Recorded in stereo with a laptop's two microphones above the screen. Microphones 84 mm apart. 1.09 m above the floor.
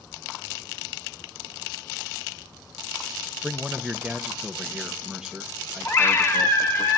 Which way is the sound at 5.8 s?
30° left (ahead or behind).